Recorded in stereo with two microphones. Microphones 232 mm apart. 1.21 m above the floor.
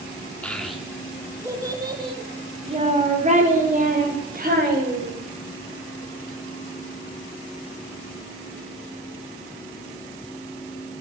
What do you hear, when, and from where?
0.4 s a child speaking: 5° left (ahead or behind), 1.7 m; by 5.2 s 40° right (ahead or behind), 4 m